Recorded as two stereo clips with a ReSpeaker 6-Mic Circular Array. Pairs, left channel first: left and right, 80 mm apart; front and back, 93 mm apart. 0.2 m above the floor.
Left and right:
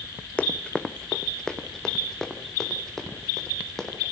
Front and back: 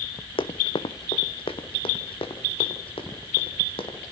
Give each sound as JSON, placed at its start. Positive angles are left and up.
{"t": 0.4, "sound": "running footsteps", "azimuth_deg": 15, "distance_m": 0.9}